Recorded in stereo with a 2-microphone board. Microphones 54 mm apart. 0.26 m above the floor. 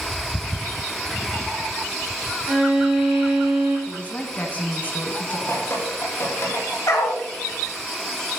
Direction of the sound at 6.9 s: 85° left.